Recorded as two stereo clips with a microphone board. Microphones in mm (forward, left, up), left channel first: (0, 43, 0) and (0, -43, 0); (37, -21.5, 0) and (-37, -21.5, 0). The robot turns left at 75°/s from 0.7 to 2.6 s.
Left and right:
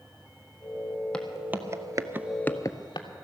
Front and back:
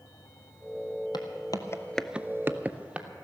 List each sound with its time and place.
1.1 s footsteps: 10° left, 1.3 m; by 3.1 s 105° left, 1.0 m